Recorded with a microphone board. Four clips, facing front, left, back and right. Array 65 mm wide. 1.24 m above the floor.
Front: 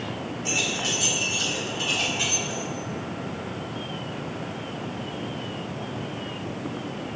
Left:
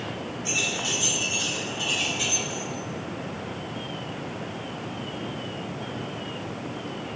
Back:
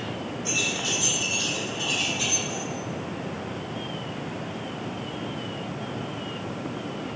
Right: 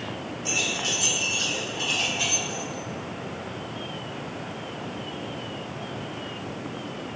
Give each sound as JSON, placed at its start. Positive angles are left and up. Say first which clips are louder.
{"t": 0.5, "sound": "keys jangling", "louder": "right 1 dB, front 2 dB", "azimuth_deg": -25, "distance_m": 3.0}